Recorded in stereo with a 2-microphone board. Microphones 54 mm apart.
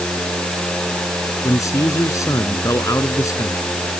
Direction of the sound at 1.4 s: 75° left (ahead or behind).